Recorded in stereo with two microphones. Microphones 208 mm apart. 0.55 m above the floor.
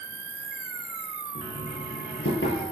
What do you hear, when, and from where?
0.0 s an insect: 75° right (ahead or behind), 1.3 m
1.4 s knocking: 70° left (ahead or behind), 9 m